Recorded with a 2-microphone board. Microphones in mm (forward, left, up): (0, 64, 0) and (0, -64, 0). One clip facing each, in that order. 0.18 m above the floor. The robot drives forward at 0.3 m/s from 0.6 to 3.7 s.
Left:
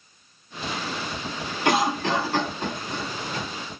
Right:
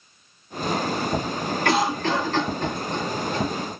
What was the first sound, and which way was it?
A cough, 15° left (ahead or behind).